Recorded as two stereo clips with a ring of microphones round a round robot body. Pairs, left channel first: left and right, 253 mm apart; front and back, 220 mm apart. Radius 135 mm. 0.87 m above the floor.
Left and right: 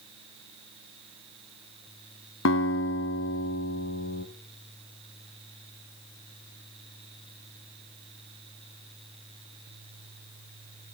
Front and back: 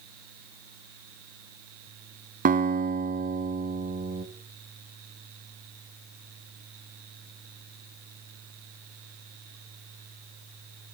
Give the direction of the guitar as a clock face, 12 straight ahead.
8 o'clock.